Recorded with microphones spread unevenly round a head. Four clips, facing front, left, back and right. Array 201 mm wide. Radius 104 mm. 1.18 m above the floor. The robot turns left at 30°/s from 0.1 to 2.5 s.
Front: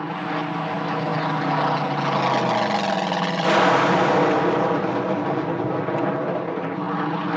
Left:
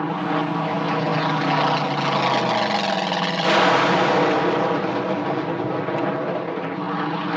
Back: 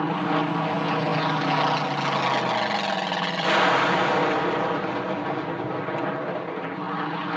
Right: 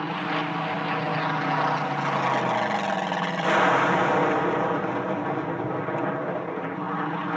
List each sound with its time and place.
0.0 s an aircraft: 115° left; by 7.4 s 45° left